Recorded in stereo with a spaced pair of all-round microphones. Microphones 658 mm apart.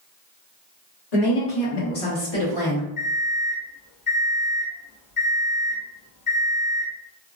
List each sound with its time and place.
1.1 s a woman speaking: 70° left (ahead or behind), 1.4 m; by 2.9 s 25° left (ahead or behind), 1.1 m
3.0 s an alarm clock: 50° left (ahead or behind), 1.2 m